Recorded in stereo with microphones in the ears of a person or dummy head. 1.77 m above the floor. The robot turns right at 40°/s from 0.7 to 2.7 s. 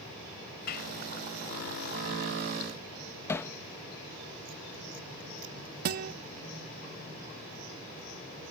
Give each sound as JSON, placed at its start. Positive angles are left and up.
{"t": 0.7, "sound": "a clap", "side_deg": 55}
{"t": 3.3, "sound": "hammering", "side_deg": 15}
{"t": 5.8, "sound": "a guitar", "side_deg": -50}